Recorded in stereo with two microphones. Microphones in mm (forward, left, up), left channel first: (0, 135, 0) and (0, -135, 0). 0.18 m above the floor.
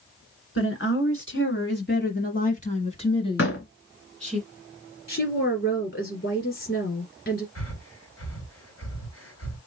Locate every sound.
0.6 s a woman speaking: 50° left (ahead or behind), 1.9 m; by 4.4 s centre (ahead or behind), 1.8 m
3.4 s a door slam: 50° left (ahead or behind), 1.2 m
5.1 s a woman speaking: 45° left (ahead or behind), 2 m
7.5 s breathing: 55° left (ahead or behind), 2.5 m